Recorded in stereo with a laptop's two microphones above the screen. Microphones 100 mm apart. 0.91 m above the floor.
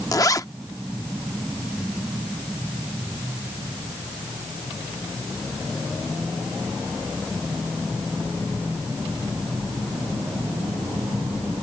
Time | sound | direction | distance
0.1 | a zipper | 35° left (ahead or behind) | ?